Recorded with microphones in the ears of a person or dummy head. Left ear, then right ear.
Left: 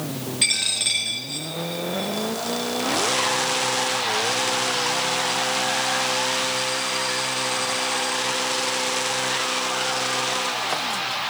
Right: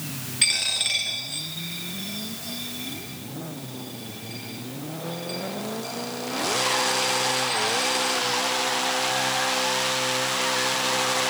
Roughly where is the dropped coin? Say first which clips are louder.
Left 1 dB; centre.